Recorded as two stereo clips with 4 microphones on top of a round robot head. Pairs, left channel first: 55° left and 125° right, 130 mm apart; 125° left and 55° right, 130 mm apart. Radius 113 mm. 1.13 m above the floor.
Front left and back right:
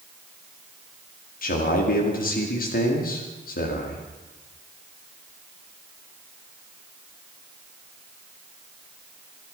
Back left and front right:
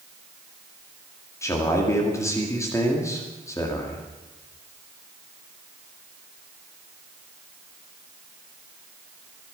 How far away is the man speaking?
About 2.5 m.